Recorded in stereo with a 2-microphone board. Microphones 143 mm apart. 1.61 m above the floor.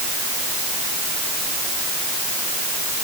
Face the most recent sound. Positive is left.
No sound to turn to.